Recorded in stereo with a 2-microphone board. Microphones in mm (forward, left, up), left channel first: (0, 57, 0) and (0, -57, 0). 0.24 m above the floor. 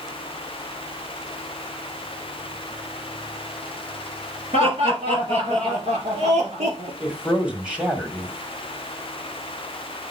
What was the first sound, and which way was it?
Laughter, 60° right (ahead or behind).